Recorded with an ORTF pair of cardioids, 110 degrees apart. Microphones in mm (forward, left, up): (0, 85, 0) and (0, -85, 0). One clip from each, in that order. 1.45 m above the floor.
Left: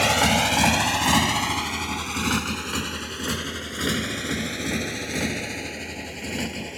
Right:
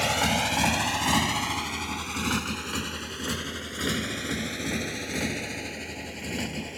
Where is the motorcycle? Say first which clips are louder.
Left 5 dB; 30° left; by 6.8 s 15° left.